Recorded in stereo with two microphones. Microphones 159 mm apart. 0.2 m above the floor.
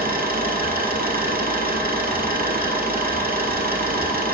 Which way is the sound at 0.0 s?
75° right (ahead or behind).